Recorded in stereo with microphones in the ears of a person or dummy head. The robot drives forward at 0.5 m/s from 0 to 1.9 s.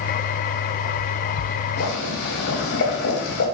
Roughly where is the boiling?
Left.